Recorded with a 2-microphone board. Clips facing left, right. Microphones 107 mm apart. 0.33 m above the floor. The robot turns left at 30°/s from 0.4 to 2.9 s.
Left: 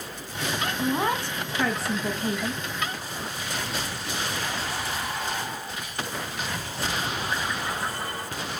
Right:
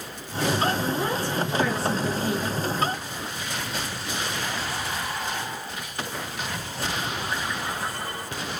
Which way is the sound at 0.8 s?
80° left.